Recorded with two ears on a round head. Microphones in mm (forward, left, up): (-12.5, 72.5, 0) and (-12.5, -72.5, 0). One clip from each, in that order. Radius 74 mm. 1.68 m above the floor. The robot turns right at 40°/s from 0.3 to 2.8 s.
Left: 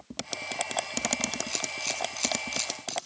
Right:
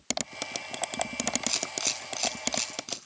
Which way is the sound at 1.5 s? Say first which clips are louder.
Right 1 dB; 40° right (ahead or behind).